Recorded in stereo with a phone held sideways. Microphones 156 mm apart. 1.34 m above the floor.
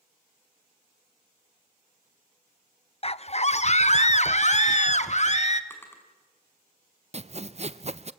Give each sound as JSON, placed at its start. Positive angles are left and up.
{"t": 3.0, "sound": "a scream", "side_deg": 40, "distance_m": 0.5}
{"t": 5.7, "sound": "a drawer", "side_deg": 15, "distance_m": 4.5}
{"t": 7.1, "sound": "sawing", "side_deg": -45, "distance_m": 0.7}